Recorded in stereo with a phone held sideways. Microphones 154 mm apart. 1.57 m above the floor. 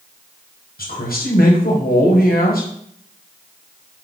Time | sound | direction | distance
0.8 | a man speaking | 75° left (ahead or behind) | 1.2 m